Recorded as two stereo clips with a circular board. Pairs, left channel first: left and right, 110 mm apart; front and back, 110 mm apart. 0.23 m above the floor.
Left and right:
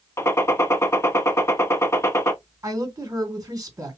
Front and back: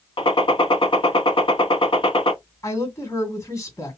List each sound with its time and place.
0.2 s a gunshot: 30° left, 0.7 m
2.6 s a woman speaking: 50° right, 2 m